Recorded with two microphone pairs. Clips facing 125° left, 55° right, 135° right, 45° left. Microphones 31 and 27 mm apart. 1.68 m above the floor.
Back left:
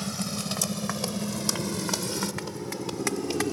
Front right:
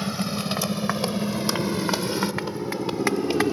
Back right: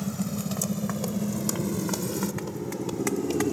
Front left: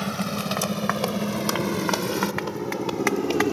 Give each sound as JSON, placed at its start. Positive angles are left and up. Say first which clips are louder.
{"t": 0.0, "sound": "a motorcycle", "louder": "front right 5 dB, front left 4 dB", "azimuth_deg": 10}